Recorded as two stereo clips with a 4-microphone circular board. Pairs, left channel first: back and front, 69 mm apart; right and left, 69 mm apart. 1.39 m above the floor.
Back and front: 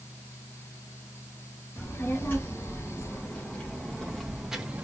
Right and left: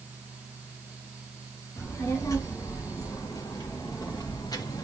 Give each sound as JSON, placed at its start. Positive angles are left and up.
{"t": 1.8, "sound": "a child speaking", "azimuth_deg": -130, "distance_m": 2.0}